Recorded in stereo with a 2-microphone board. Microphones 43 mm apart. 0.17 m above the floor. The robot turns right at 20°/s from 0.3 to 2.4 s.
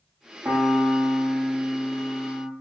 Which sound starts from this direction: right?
A piano, at 0.5 s.